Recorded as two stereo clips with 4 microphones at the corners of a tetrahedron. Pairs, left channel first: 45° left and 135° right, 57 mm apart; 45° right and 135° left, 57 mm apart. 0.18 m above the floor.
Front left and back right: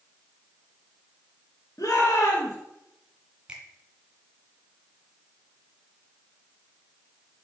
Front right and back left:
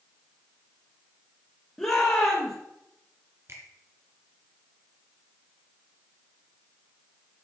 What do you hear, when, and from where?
1.8 s a shout: 30° left, 3 m
3.5 s a finger snap: 160° left, 2 m